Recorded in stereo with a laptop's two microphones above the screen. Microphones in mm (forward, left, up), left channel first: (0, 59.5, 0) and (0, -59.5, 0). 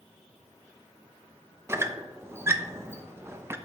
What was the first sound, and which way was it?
A squeak, 20° right (ahead or behind).